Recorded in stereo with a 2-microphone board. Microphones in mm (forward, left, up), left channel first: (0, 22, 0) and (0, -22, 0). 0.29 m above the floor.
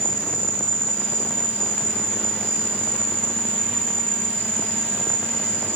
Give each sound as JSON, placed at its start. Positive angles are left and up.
{"t": 0.0, "sound": "an insect", "side_deg": -70, "distance_m": 1.1}